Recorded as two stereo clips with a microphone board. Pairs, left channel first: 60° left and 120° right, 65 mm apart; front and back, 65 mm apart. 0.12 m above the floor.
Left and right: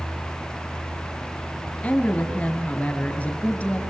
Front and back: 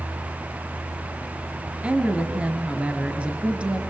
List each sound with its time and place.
1.8 s a woman speaking: 120° left, 1.5 m